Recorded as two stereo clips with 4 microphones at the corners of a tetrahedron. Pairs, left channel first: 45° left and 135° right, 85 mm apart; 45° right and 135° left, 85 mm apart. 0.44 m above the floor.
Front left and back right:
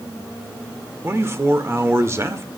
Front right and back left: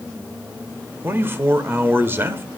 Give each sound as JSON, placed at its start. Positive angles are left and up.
{"t": 1.0, "sound": "a man speaking", "azimuth_deg": -175, "distance_m": 1.2}